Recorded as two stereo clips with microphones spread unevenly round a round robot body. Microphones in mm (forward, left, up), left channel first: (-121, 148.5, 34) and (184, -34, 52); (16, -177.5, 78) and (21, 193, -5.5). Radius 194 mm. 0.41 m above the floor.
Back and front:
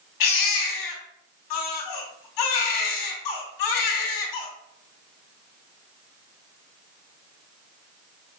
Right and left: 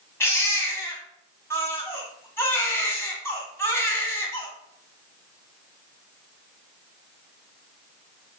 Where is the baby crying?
175° right, 2 m.